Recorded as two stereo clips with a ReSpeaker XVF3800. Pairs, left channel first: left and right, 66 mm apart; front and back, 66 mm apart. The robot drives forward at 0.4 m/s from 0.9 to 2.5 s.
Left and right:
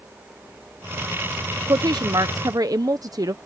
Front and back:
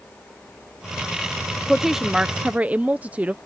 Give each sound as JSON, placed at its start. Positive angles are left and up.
{"t": 1.7, "sound": "a woman speaking", "azimuth_deg": -90}